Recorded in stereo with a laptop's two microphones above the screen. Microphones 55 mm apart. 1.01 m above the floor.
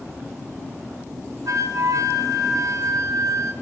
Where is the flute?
70° right (ahead or behind), 0.7 m.